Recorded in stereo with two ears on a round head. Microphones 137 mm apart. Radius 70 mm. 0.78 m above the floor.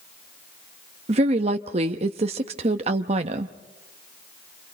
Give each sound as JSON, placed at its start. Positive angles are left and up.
{"t": 1.1, "sound": "a woman speaking", "side_deg": -45, "distance_m": 0.8}